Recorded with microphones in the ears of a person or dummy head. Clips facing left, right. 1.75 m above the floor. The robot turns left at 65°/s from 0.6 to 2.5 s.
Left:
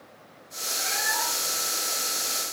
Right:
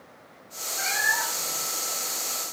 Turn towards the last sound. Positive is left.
turn(degrees=165)